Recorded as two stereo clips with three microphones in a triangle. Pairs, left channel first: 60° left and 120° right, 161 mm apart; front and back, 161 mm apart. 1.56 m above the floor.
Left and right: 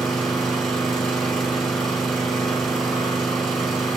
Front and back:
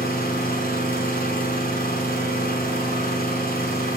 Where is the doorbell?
No doorbell in this recording.